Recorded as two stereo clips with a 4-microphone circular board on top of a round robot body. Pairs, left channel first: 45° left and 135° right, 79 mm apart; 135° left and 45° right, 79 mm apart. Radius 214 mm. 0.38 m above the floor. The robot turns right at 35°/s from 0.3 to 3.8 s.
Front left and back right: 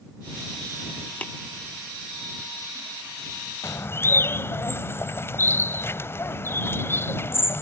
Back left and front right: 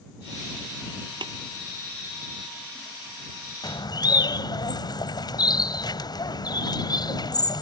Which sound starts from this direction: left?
A bird, at 3.6 s.